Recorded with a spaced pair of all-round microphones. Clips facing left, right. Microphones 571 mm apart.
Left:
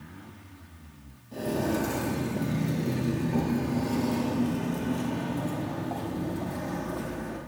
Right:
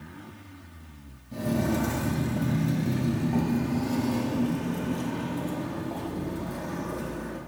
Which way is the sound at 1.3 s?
30° right (ahead or behind).